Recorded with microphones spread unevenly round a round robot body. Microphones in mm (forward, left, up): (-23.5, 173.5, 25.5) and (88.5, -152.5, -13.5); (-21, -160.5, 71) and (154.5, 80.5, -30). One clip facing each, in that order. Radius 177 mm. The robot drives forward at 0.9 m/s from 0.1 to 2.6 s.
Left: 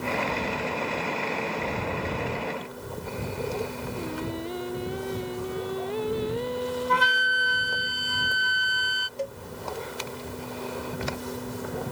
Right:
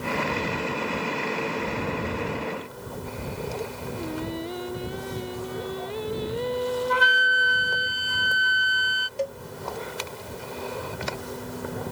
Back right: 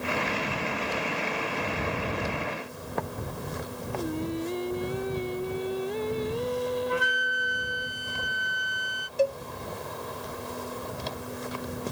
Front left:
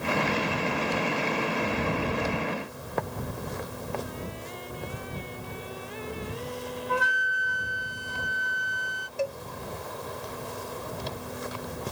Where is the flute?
155° left.